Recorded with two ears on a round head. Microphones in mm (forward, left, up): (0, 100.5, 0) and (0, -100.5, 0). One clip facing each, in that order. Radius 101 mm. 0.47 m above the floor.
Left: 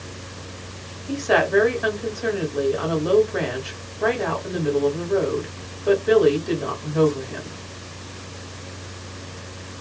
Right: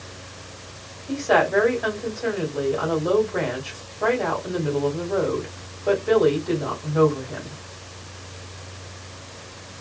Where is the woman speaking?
5° left (ahead or behind), 1.5 m.